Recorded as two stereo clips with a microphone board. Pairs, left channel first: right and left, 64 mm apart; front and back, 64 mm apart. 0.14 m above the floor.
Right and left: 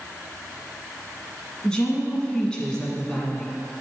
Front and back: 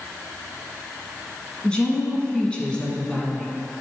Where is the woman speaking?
40° right, 1.3 m.